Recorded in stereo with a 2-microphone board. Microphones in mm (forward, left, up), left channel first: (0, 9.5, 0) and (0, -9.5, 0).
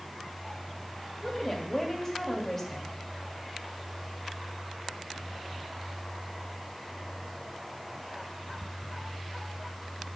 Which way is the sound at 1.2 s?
20° left (ahead or behind).